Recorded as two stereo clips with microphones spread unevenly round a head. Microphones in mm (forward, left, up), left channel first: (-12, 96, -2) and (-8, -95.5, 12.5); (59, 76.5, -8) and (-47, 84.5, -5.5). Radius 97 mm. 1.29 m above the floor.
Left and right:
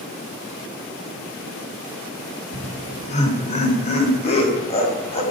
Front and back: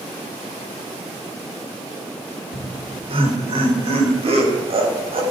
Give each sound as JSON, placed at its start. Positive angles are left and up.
{"t": 2.5, "sound": "laughter", "azimuth_deg": 145, "distance_m": 3.0}